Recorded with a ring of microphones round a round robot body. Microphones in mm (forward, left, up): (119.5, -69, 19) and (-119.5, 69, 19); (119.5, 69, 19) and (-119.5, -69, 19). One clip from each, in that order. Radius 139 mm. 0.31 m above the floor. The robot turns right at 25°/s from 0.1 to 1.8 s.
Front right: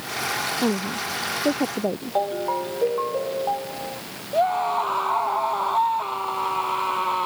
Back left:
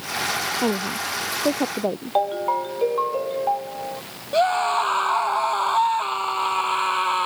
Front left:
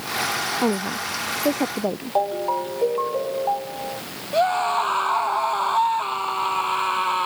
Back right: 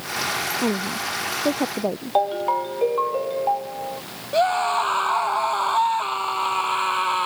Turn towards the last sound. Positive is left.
turn(degrees=135)